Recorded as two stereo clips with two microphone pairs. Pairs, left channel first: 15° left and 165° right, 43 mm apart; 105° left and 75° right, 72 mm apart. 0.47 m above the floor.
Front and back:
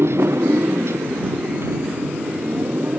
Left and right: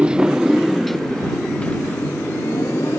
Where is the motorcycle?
150° right; by 3.0 s 160° left.